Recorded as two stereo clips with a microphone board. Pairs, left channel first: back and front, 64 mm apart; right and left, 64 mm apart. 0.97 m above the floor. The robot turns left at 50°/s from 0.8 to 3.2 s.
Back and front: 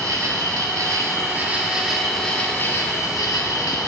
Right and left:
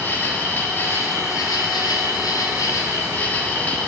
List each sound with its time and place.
0.0 s an insect: 30° right, 1.2 m; by 3.9 s 150° right, 1.2 m